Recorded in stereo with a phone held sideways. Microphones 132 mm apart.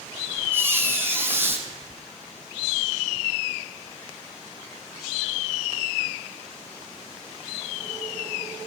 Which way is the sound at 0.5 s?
15° right (ahead or behind).